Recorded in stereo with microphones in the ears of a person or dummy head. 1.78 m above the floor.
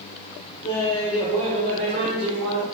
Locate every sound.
0.6 s laughter: 25° left (ahead or behind), 0.8 m; by 2.6 s 50° right (ahead or behind), 1.6 m